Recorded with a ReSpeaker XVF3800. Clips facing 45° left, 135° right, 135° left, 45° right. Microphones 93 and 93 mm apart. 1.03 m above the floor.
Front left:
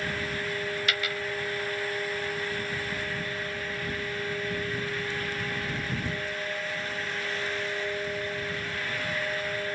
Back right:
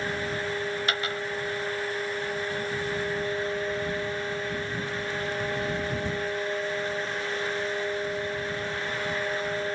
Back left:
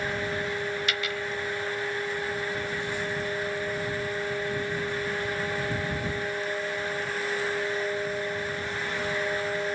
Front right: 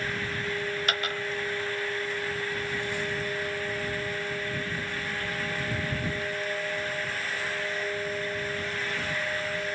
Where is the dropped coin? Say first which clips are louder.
Back right 2 dB, even; 85° right.